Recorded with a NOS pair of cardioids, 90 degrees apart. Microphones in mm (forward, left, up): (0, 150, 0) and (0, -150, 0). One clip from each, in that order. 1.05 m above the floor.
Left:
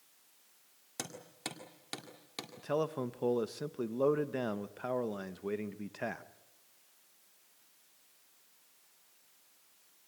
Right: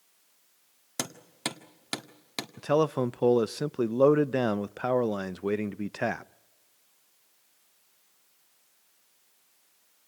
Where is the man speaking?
40° right, 0.5 m.